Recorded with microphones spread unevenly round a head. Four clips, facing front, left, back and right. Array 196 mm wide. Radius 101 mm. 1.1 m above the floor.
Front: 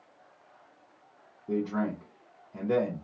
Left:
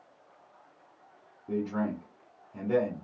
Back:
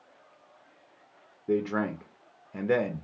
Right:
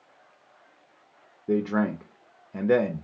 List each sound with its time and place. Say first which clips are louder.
1.5 s a man speaking: right 6 dB, back 2 dB; 120° right, 0.5 m